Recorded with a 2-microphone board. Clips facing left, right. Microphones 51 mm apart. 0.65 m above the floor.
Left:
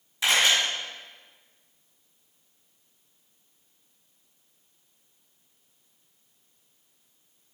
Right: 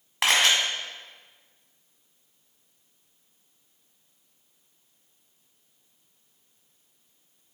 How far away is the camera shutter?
About 1.8 m.